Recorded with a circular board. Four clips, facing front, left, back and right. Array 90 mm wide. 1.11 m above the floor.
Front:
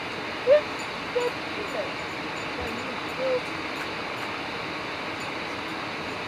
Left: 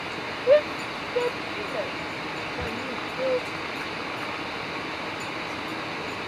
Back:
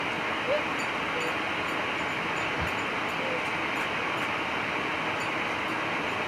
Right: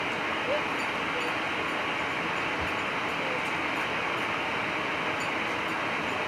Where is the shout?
50° left.